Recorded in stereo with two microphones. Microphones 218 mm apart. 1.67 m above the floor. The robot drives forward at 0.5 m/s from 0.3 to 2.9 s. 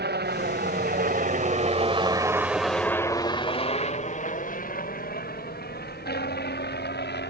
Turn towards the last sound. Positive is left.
turn(degrees=50)  # may be behind; listen again after turning